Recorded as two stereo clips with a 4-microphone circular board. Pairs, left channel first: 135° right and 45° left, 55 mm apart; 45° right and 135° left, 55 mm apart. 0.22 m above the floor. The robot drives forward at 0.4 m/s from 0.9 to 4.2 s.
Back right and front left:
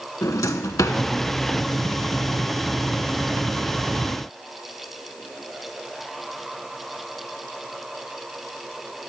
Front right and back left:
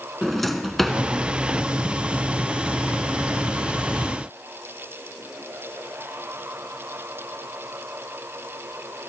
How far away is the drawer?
About 0.6 m.